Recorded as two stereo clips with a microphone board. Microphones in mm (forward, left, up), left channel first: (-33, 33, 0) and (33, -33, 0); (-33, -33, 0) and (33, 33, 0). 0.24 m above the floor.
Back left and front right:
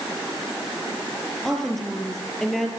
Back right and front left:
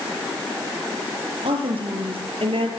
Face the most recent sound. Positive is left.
turn(degrees=50)